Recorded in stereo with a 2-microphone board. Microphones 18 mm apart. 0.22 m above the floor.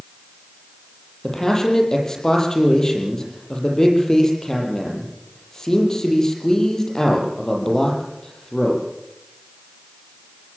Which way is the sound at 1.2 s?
25° left (ahead or behind).